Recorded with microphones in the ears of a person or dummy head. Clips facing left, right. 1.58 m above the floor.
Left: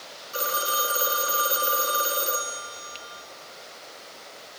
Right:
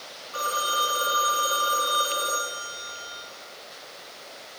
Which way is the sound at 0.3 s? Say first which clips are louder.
Left 1 dB; 25° left (ahead or behind).